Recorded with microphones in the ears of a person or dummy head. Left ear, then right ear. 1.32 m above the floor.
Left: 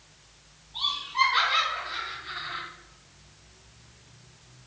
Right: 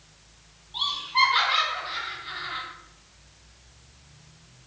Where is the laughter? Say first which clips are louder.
Right 3 dB; 25° right (ahead or behind), 1.1 m.